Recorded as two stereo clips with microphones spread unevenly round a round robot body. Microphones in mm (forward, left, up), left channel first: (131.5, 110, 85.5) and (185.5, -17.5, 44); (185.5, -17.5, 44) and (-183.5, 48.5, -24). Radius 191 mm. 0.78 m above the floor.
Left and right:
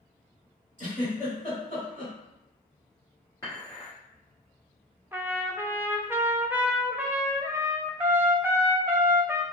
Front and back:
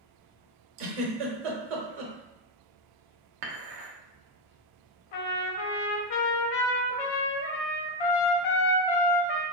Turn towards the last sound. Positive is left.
turn(degrees=-10)